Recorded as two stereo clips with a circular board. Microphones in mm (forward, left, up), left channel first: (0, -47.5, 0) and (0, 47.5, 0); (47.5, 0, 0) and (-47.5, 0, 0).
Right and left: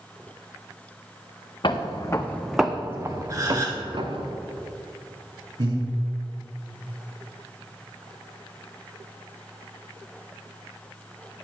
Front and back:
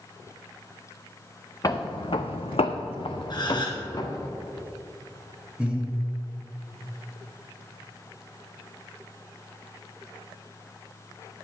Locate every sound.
1.6 s footsteps: 55° right, 1.2 m; by 4.3 s 55° left, 2 m
3.3 s a gasp: 35° left, 1.9 m
5.6 s breathing: 105° left, 2.5 m